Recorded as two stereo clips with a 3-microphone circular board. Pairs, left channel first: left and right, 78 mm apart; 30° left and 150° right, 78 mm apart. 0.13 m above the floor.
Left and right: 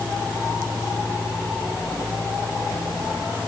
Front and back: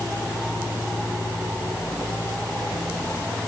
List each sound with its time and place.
Only background noise.